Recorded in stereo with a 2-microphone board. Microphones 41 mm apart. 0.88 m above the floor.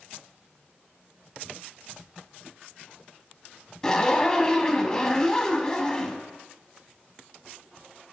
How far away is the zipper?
About 0.8 m.